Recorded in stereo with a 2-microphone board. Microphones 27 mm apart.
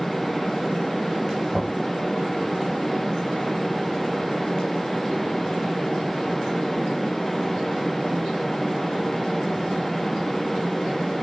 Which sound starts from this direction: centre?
Knocking, at 1.5 s.